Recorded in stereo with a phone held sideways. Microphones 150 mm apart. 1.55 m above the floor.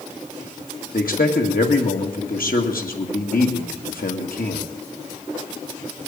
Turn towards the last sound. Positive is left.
turn(degrees=75)  # may be behind; listen again after turning